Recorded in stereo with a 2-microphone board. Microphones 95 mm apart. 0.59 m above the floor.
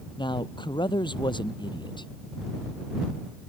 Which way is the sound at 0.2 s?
60° left (ahead or behind).